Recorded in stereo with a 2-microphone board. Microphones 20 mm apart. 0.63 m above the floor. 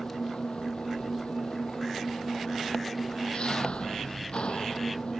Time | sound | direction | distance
0.0 | an engine running | 80° left | ?